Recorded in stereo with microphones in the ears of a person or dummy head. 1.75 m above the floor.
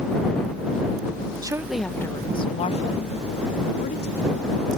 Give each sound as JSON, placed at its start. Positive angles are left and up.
{"t": 1.4, "sound": "a woman speaking", "side_deg": -20}